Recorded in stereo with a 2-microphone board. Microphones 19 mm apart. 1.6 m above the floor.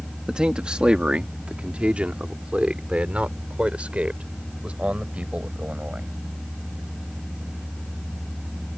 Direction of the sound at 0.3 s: 45° right (ahead or behind).